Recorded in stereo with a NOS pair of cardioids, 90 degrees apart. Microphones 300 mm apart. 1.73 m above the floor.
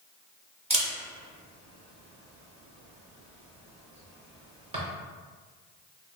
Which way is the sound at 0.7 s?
20° right.